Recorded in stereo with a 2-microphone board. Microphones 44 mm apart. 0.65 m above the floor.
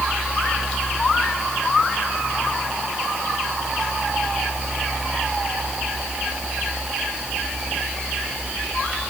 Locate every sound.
Only background noise.